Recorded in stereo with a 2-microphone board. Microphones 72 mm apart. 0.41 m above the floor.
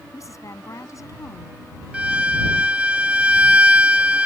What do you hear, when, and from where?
0.1 s a woman speaking: 45° left (ahead or behind)
1.9 s a violin: 15° right (ahead or behind)